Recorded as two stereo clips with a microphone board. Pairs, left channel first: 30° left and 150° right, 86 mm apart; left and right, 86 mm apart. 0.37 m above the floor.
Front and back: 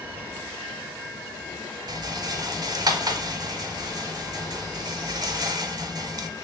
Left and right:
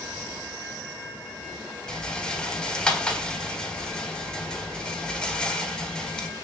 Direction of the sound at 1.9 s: 170° left.